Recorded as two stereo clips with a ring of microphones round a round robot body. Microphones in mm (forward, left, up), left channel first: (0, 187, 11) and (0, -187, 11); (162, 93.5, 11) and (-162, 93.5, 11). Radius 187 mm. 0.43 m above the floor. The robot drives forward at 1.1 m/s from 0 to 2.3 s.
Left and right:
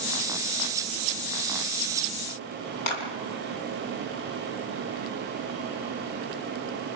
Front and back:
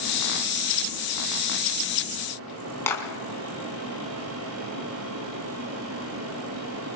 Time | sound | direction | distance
2.9 | a clap | 85° left | 4.5 m